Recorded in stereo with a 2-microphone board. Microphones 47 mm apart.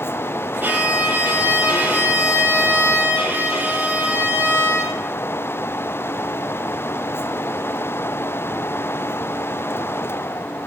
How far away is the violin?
About 8.5 m.